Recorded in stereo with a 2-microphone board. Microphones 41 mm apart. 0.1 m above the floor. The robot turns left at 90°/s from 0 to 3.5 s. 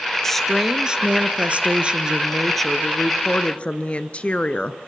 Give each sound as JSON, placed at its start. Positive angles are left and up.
{"t": 0.2, "sound": "a woman speaking", "azimuth_deg": 20, "distance_m": 1.3}